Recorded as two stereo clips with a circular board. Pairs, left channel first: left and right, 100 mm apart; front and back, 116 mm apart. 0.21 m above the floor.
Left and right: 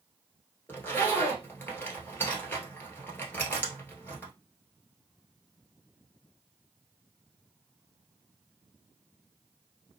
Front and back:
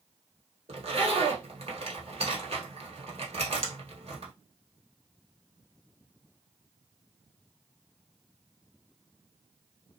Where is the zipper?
155° left, 1.1 m.